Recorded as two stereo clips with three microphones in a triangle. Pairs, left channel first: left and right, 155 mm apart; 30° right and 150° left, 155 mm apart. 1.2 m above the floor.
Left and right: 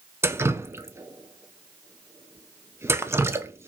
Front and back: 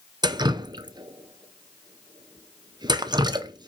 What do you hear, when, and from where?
0.2 s dripping: 155° right, 0.7 m